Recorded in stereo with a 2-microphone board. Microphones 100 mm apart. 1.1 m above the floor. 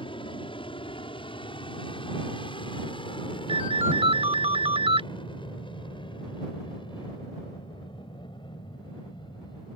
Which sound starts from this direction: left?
An aircraft, at 0.0 s.